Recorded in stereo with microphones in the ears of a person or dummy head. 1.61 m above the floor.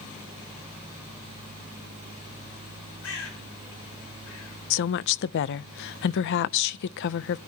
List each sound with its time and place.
3.0 s a bird: 80° left, 6 m
4.7 s a woman speaking: 65° left (ahead or behind), 0.6 m